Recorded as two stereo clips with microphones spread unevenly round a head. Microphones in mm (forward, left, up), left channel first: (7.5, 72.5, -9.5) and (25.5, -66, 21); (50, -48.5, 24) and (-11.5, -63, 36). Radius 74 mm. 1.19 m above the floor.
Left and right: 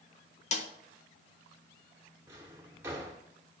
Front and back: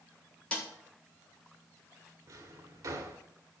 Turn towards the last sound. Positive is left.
turn(degrees=-155)